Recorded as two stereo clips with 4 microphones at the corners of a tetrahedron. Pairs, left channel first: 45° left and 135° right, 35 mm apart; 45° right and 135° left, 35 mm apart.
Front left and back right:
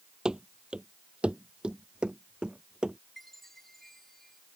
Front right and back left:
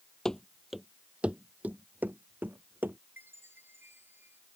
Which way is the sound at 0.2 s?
95° right.